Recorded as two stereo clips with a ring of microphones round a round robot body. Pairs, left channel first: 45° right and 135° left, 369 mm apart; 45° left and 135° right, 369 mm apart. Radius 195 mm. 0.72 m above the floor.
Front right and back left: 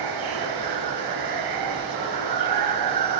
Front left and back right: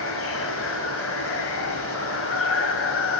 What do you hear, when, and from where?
0.0 s running water: 100° left, 3 m